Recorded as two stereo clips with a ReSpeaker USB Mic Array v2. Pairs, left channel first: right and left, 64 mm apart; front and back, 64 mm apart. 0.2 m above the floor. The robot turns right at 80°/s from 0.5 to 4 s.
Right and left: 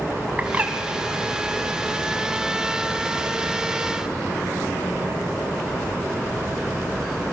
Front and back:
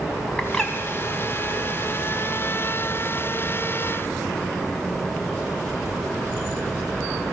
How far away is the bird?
About 1.2 m.